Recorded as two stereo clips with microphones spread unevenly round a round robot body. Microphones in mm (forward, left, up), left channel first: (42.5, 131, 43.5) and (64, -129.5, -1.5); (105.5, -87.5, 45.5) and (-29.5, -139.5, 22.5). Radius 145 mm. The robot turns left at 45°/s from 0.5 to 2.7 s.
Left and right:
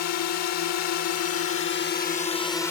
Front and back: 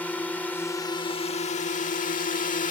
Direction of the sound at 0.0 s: 110° left.